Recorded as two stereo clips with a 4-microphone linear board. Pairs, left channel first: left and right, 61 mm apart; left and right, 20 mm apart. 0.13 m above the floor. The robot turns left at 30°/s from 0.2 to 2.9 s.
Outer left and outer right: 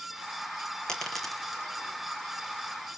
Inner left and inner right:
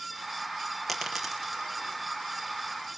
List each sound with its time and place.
0.9 s a dropped coin: 15° left (ahead or behind), 1.6 m; by 1.6 s 10° right (ahead or behind), 1.6 m